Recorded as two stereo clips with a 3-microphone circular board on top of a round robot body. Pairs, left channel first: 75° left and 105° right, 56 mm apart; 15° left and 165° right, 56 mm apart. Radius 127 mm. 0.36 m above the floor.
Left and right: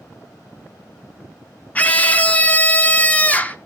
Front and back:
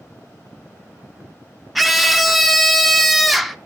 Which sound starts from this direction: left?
A scream, at 1.8 s.